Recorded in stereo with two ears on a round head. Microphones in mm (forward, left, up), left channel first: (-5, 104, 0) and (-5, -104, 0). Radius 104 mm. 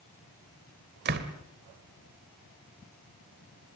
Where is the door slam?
45° right (ahead or behind), 2.0 m.